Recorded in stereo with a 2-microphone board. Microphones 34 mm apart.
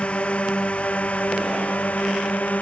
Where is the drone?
40° left (ahead or behind); by 2.6 s 55° left (ahead or behind).